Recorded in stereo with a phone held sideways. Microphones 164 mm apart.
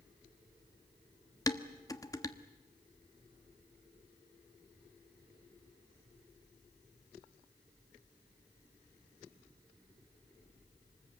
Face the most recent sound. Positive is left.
turn(degrees=20)  # may be behind; listen again after turning